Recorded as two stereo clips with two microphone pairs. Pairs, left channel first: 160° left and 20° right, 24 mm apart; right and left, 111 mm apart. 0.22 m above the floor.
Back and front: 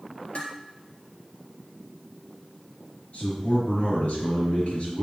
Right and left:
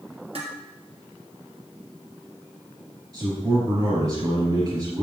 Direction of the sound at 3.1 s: 135° left.